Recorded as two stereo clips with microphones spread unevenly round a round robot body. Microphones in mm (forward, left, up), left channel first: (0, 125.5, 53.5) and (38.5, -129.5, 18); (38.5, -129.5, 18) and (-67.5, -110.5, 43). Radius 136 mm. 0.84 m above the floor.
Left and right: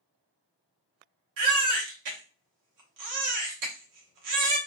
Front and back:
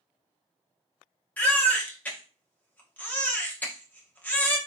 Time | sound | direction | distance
1.4 | a baby crying | 85° right | 1.1 m